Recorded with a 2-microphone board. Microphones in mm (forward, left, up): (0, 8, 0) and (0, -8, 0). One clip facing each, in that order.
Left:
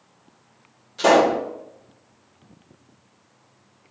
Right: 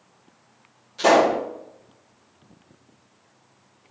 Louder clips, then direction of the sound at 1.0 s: Left 1 dB; 5° left (ahead or behind).